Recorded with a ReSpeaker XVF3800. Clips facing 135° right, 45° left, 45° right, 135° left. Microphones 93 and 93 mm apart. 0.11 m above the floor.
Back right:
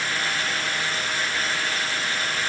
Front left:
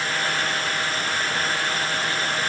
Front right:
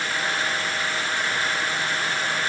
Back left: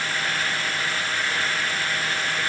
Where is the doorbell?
No doorbell in this recording.